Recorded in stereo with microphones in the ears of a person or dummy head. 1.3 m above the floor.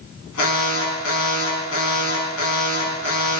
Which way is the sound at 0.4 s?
85° left.